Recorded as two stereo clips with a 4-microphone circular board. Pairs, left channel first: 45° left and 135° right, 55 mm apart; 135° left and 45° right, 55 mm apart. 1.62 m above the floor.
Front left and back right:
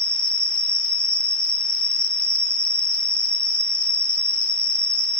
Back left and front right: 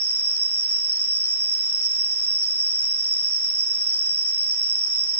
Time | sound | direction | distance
0.0 | an insect | 170° right | 4 m